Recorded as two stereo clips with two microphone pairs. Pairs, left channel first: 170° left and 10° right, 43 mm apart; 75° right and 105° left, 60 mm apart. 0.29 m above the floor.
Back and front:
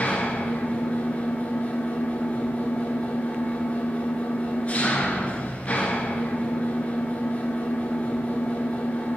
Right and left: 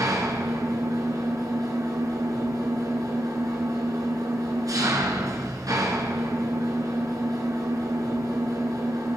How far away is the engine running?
About 1.6 m.